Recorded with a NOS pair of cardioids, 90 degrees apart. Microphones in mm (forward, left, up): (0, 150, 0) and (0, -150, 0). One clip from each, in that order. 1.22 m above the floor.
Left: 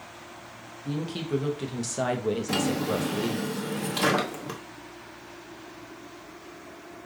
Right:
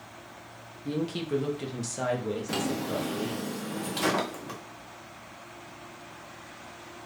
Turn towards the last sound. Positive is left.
turn(degrees=15)